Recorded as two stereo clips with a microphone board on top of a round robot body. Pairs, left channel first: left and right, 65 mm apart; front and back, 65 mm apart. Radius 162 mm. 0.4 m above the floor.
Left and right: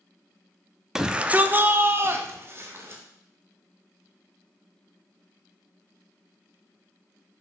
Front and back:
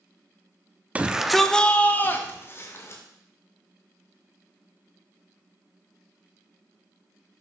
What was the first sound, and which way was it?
A shout, 160° right.